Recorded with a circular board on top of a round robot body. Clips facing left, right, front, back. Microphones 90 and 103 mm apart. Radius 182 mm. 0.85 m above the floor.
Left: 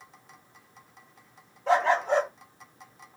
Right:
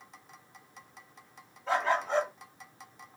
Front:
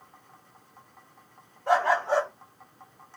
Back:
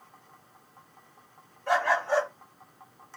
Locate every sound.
1.7 s a dog barking: 70° left, 1.8 m